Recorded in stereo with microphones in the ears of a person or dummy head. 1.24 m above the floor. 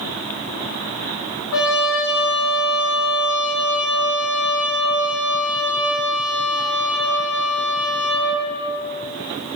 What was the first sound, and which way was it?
A trumpet, 75° left (ahead or behind).